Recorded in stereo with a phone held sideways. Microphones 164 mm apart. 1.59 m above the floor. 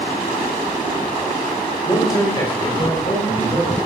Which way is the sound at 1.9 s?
20° left (ahead or behind).